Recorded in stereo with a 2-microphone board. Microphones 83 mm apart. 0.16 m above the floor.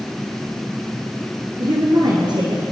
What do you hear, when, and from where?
1.6 s a woman speaking: 60° right (ahead or behind), 2.5 m